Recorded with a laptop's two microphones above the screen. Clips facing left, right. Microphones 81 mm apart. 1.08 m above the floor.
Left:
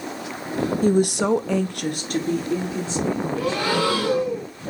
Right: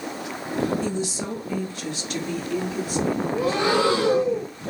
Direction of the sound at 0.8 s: 45° left (ahead or behind).